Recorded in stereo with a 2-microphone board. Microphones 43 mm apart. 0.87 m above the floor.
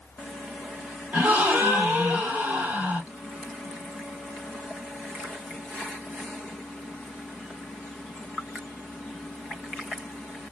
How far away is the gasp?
About 1.5 m.